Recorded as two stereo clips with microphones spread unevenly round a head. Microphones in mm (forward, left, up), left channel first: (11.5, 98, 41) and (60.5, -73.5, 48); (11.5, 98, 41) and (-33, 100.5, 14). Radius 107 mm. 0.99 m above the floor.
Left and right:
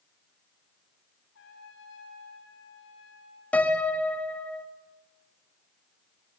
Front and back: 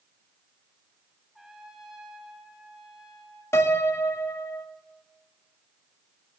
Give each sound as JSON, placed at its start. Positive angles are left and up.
{"t": 1.4, "sound": "a trumpet", "azimuth_deg": 90, "distance_m": 7.5}
{"t": 3.5, "sound": "a piano", "azimuth_deg": 25, "distance_m": 1.8}